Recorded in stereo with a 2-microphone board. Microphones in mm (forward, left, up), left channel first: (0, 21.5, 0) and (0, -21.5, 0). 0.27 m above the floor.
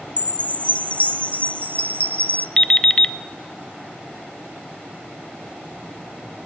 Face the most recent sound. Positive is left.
turn(degrees=15)  # may be behind; listen again after turning